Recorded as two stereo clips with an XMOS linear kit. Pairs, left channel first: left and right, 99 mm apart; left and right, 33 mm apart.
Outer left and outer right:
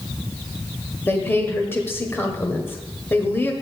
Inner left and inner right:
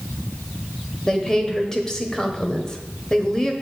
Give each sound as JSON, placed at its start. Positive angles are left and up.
{"t": 1.1, "sound": "a woman speaking", "side_deg": 20, "distance_m": 1.2}